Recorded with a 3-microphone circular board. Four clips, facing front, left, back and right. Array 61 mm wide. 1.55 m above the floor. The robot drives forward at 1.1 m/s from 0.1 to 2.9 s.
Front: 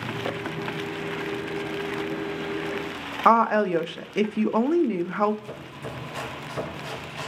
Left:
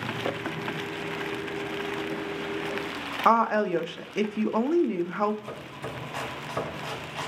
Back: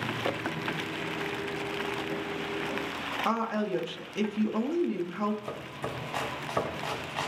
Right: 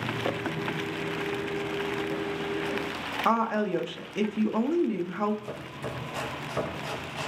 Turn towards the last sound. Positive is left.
turn(degrees=175)